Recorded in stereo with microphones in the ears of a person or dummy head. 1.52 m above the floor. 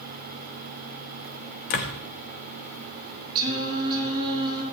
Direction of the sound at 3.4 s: 20° right (ahead or behind).